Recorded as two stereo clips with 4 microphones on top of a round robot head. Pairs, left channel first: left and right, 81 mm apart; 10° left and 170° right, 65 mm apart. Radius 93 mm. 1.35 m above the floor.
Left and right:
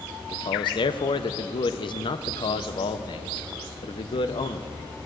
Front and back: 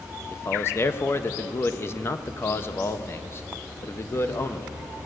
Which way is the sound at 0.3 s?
65° left.